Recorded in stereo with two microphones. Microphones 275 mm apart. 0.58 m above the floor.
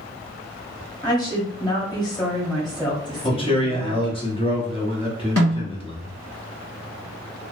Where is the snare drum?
60° left (ahead or behind), 1.4 m.